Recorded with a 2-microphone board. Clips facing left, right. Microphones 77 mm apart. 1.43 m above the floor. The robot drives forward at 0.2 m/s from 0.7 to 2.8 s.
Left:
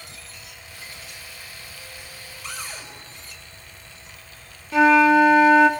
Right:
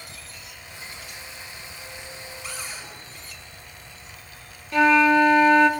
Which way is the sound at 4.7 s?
5° left (ahead or behind).